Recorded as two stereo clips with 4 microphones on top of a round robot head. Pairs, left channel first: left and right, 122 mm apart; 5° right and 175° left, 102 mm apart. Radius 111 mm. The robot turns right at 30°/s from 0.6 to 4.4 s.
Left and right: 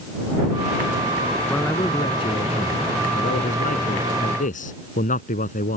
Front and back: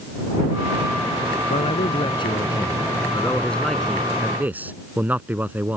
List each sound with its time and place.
1.5 s a man speaking: 15° left; by 5.8 s 100° left